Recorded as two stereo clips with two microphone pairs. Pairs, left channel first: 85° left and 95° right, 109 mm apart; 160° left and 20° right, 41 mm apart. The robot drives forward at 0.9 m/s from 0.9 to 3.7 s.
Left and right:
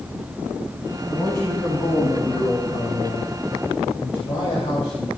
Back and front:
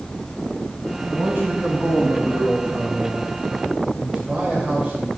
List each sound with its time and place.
1.1 s a man speaking: 40° left, 5 m; by 5.1 s 65° left, 3.5 m